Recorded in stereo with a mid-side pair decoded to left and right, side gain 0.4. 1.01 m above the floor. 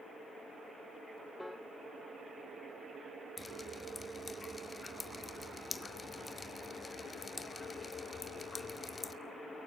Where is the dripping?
30° left, 2 m.